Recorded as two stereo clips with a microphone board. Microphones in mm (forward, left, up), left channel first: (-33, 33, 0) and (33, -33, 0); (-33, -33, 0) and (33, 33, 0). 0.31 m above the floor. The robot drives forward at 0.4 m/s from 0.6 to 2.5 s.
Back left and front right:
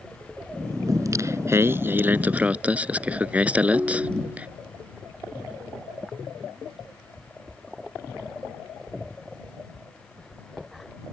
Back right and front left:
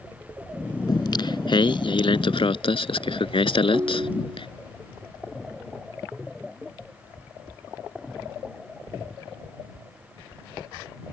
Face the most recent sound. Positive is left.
turn(degrees=20)